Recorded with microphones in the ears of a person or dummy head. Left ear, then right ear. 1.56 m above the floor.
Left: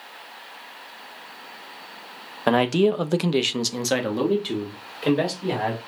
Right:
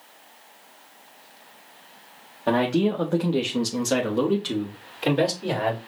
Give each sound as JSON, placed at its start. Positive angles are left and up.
{"t": 2.5, "sound": "a man speaking", "side_deg": 60, "distance_m": 0.7}